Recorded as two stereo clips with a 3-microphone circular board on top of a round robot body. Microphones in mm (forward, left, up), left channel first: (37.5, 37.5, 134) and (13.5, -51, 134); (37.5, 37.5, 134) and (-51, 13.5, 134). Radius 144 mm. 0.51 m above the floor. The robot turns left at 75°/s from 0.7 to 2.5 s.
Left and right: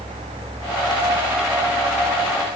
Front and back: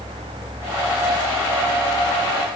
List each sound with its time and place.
Only background noise.